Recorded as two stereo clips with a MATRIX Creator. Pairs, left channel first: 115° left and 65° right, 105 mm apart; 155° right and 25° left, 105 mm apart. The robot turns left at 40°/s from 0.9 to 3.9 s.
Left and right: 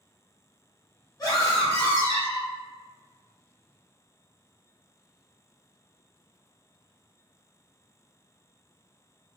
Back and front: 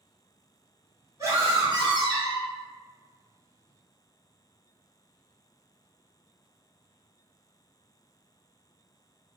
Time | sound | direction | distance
1.2 | a scream | 70° left | 2.0 m